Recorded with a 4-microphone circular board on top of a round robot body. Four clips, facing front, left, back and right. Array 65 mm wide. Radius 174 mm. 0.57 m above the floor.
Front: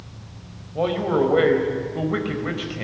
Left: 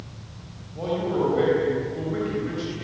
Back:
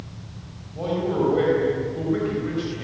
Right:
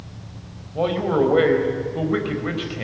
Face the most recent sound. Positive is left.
turn(degrees=-50)